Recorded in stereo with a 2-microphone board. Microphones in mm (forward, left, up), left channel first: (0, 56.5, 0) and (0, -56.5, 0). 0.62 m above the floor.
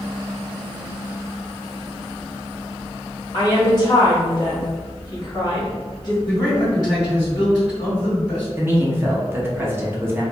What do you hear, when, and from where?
3.3 s a woman speaking: 40° left (ahead or behind), 1.4 m
6.2 s a man speaking: 30° left (ahead or behind), 1.9 m
8.6 s a man speaking: 20° right (ahead or behind), 0.6 m